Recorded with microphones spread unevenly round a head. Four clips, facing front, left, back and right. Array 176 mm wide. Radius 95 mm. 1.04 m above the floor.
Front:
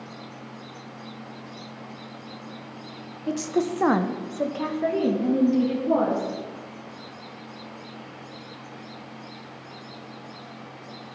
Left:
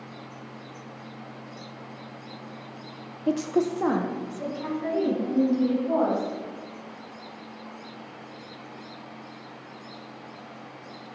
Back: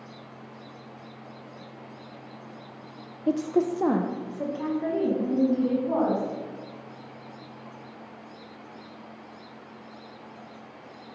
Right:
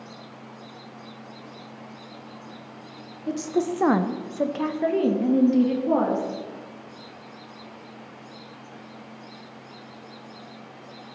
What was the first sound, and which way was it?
A woman speaking, 120° left.